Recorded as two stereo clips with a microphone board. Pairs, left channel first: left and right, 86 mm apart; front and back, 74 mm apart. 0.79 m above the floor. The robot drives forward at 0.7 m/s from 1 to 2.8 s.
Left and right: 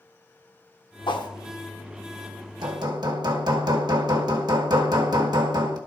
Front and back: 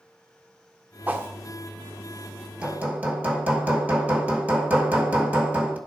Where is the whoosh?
115° left, 0.8 m; by 1.3 s 125° left, 0.9 m.